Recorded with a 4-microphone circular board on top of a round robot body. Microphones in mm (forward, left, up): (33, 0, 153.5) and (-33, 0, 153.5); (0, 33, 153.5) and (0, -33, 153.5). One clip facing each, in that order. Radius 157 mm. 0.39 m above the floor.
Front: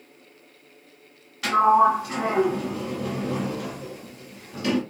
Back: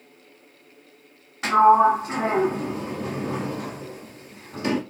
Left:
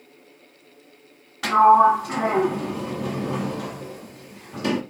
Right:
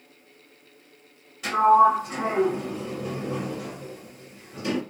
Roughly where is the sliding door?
Behind left.